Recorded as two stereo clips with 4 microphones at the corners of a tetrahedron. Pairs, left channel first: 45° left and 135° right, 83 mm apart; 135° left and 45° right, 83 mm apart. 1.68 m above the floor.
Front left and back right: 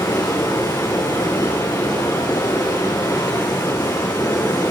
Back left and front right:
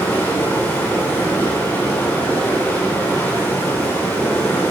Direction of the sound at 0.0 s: 75° left.